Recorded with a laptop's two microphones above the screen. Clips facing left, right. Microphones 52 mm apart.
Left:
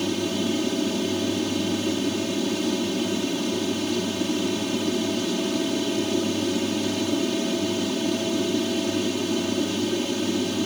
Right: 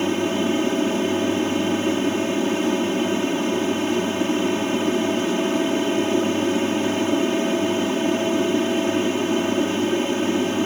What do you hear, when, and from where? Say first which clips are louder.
0.0 s an aircraft: right 4 dB; 30° right (ahead or behind)